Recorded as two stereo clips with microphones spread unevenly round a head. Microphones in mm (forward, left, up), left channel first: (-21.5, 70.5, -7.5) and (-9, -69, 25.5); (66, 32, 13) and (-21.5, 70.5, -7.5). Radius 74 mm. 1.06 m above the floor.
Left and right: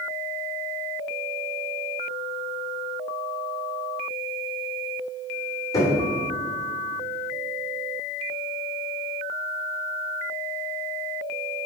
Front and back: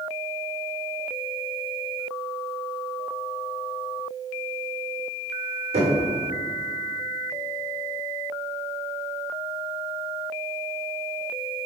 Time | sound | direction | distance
5.7 | knocking | 165° left | 2.5 m